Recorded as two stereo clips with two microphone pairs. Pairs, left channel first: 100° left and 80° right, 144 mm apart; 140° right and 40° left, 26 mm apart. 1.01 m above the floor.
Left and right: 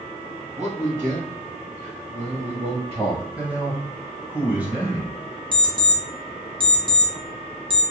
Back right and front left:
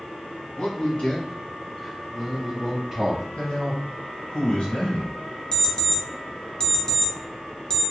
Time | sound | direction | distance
0.6 | a man speaking | 105° right | 1.2 m
3.4 | a man speaking | 155° right | 1.1 m
5.5 | an alarm clock | 100° right | 0.6 m